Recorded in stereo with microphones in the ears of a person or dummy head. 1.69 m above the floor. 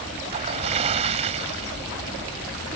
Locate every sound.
0.2 s a splash: 35° right (ahead or behind)